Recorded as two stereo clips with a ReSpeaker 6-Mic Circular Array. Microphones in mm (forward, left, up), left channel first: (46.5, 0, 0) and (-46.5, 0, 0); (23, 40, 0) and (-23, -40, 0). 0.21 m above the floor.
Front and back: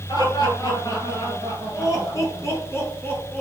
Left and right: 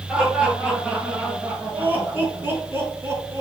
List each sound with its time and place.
0.1 s laughter: 40° right, 5 m; by 3.4 s 70° right, 3 m